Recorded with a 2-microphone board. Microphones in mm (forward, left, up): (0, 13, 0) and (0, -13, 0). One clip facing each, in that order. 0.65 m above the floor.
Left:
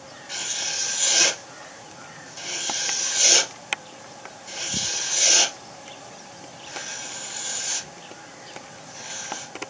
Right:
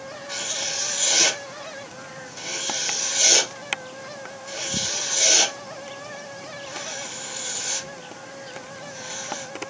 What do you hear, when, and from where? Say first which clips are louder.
0.3 s writing: even; 10° right (ahead or behind), 1.5 m